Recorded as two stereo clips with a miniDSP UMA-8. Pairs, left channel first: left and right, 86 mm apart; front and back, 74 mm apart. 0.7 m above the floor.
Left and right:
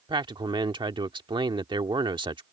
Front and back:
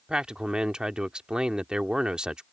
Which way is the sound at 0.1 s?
100° right.